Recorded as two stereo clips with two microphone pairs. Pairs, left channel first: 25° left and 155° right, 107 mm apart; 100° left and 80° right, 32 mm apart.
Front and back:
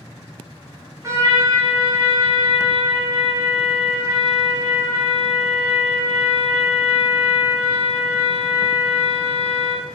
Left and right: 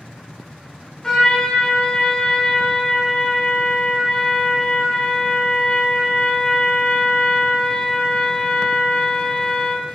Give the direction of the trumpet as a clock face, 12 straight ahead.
7 o'clock.